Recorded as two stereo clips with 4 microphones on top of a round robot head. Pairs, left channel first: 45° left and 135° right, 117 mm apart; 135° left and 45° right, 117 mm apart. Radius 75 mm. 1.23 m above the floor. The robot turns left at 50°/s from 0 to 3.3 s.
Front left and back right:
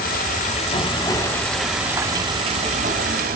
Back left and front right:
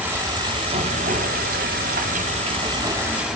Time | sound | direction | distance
0.0 | running water | 35° left | 1.7 m